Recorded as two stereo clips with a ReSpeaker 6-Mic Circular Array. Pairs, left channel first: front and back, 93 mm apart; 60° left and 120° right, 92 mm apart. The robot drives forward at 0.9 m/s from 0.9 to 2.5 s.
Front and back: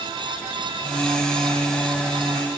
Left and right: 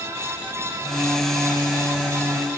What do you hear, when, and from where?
Only background noise.